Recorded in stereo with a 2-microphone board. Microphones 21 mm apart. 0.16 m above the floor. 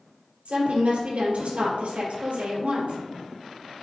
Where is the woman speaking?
70° right (ahead or behind), 3 m.